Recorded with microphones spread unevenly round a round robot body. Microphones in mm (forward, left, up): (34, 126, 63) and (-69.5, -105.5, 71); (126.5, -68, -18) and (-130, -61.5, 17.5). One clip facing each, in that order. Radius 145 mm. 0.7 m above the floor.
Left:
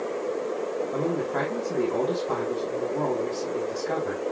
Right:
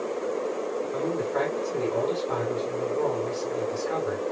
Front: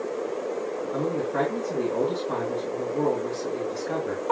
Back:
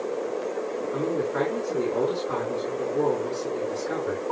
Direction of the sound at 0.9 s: 90° left.